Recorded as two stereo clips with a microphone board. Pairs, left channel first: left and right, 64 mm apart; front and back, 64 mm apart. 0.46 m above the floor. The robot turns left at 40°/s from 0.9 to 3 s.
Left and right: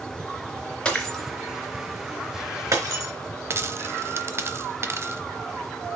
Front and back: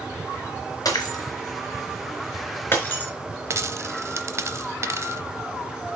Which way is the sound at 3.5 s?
140° right.